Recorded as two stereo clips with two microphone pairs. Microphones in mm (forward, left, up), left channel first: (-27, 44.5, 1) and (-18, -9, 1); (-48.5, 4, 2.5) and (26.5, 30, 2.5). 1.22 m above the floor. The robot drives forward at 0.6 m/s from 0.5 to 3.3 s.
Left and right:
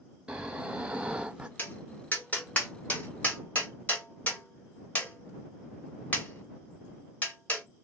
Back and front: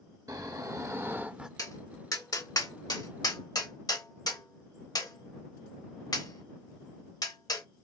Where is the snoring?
10° right, 0.9 m; by 1.5 s 45° right, 0.5 m.